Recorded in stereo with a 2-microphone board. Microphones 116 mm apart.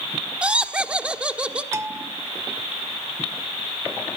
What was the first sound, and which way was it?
Laughter, 10° right (ahead or behind).